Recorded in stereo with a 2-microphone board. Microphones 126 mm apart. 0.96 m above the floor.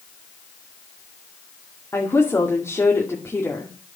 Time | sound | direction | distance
1.9 | a woman speaking | 20° left (ahead or behind) | 2 m